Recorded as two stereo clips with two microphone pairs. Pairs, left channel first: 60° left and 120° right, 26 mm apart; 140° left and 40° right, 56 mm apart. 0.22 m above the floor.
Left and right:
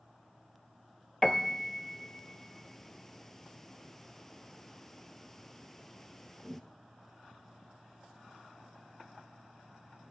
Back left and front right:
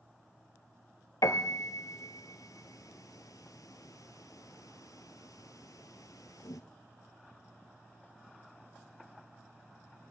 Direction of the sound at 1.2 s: 140° left.